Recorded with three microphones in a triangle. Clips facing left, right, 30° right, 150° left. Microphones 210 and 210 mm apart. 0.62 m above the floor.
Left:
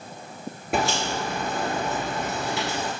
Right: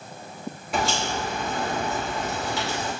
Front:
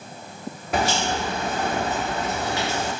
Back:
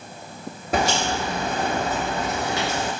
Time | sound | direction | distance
0.7 | a crack | 100° left | 2.5 m